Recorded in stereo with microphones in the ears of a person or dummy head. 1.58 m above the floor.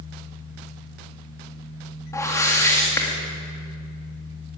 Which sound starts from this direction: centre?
A whoosh, at 2.1 s.